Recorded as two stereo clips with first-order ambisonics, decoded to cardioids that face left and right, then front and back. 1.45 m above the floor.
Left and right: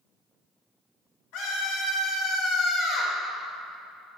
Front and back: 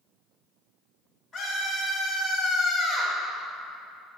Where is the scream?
80° left, 1.6 m.